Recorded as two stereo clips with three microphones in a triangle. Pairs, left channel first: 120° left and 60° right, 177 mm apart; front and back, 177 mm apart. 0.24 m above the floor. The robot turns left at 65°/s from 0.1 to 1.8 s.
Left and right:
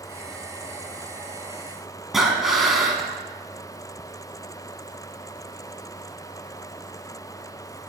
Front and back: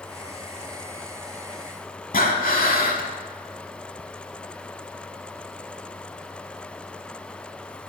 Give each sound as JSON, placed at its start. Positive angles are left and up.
{"t": 2.1, "sound": "breathing", "azimuth_deg": 30, "distance_m": 0.7}